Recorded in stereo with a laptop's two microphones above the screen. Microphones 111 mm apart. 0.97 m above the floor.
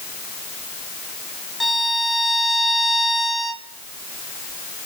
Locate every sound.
1.6 s a violin: centre (ahead or behind), 1.3 m